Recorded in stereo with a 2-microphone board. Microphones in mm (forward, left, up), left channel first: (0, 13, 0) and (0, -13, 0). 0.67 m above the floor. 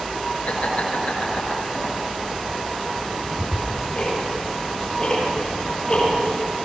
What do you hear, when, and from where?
0.5 s laughter: 60° left (ahead or behind), 8.5 m; by 1.9 s 50° left (ahead or behind), 8 m
3.0 s ticking: 30° left (ahead or behind), 9 m